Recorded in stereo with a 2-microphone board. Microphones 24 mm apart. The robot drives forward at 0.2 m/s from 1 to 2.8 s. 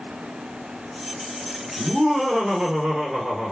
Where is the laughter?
35° right (ahead or behind), 2.5 m; by 3.5 s 30° right (ahead or behind), 2.5 m.